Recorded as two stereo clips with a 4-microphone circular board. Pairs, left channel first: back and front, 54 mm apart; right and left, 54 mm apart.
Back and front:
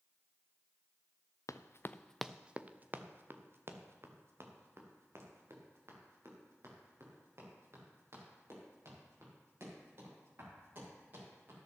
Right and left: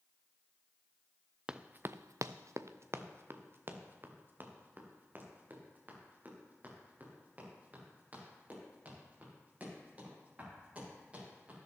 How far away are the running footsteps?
About 0.8 m.